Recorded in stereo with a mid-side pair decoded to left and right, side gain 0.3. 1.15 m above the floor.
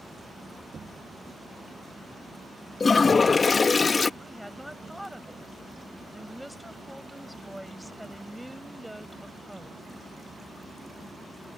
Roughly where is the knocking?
Ahead right.